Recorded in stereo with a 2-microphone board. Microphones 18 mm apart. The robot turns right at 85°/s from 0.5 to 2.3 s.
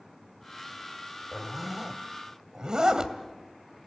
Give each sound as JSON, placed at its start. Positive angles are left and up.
{"t": 1.3, "sound": "a zipper", "side_deg": 10, "distance_m": 1.8}